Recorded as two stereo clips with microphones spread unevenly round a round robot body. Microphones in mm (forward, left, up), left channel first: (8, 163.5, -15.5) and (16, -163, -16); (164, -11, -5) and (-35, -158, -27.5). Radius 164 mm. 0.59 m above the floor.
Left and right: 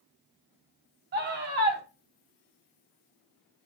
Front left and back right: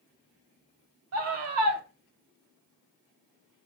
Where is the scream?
150° right, 3 m.